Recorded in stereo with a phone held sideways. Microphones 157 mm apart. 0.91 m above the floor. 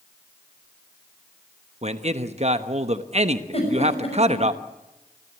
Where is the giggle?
45° left (ahead or behind), 6 m.